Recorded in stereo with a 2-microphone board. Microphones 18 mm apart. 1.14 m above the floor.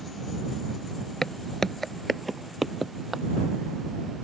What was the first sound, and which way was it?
Footsteps, 35° left (ahead or behind).